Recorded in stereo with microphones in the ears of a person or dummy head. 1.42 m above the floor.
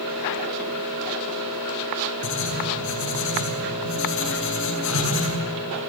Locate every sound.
2.2 s writing: 70° left (ahead or behind), 8 m